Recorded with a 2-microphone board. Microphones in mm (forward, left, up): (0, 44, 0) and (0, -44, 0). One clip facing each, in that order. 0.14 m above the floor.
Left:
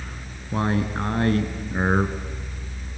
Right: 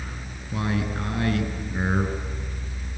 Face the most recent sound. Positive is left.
turn(degrees=40)  # may be behind; listen again after turning